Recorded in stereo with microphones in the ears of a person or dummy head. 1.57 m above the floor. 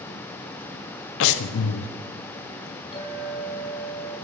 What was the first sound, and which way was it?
Breathing, 70° left (ahead or behind).